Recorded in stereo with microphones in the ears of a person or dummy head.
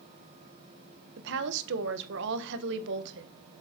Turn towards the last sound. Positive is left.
turn(degrees=-65)  # may be behind; listen again after turning